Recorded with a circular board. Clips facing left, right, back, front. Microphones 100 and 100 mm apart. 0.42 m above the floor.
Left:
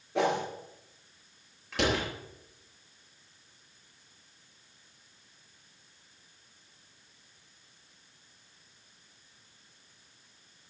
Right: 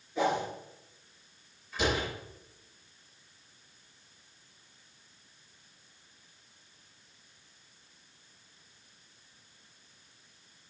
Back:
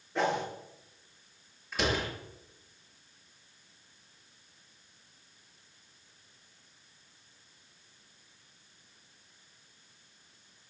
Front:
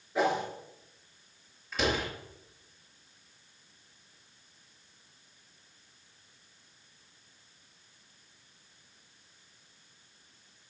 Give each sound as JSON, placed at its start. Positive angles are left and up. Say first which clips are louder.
{"t": 0.1, "sound": "a whoosh", "louder": "left 1 dB, front 2 dB", "azimuth_deg": 85, "distance_m": 5.0}
{"t": 1.7, "sound": "a door slam", "louder": "left 1 dB, front 1 dB", "azimuth_deg": 90, "distance_m": 6.0}